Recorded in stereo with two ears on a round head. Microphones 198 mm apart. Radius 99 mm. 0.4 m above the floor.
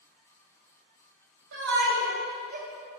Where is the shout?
60° right (ahead or behind), 2.5 m; by 2.7 s 40° right (ahead or behind), 2.0 m.